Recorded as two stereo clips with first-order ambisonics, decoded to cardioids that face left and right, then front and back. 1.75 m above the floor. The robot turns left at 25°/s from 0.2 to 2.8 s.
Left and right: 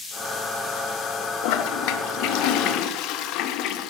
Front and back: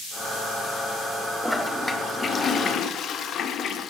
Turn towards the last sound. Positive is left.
turn(degrees=55)